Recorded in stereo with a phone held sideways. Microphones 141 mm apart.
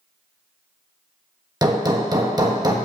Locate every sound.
1.6 s hammering: 25° right (ahead or behind), 1.3 m